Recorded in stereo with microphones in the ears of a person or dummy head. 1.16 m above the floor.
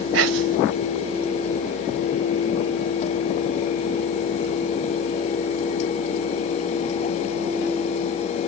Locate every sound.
0.1 s whispering: 75° right (ahead or behind), 0.5 m